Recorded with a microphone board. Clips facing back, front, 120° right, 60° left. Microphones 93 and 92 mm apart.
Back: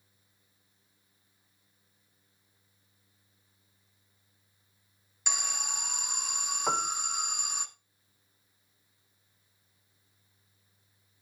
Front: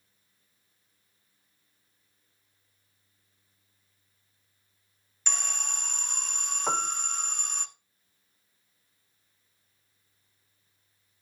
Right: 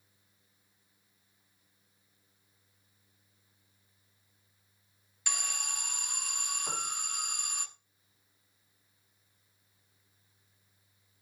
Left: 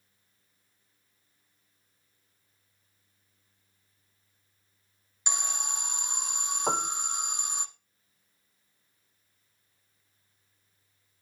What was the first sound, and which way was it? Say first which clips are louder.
An alarm: even, left 4 dB; 105° left.